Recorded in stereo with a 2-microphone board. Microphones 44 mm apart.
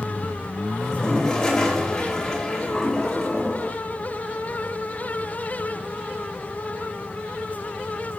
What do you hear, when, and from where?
0.8 s a toilet flushing: 10° left (ahead or behind), 2.5 m